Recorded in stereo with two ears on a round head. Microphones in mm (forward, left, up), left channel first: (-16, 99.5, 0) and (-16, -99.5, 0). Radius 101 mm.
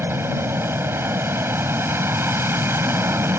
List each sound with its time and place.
0.0 s an aircraft: 10° right (ahead or behind)